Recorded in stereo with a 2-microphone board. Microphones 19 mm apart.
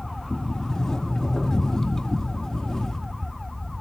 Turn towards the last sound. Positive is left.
turn(degrees=40)  # may be behind; listen again after turning